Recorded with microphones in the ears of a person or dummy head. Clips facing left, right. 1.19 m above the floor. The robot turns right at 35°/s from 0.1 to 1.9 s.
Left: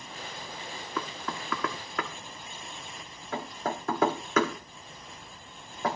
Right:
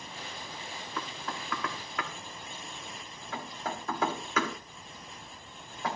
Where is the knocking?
75° left (ahead or behind), 1.5 m; by 6.0 s 45° left (ahead or behind), 1.5 m.